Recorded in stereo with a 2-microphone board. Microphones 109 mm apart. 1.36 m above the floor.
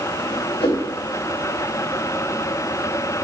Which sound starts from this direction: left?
A whoosh, at 0.6 s.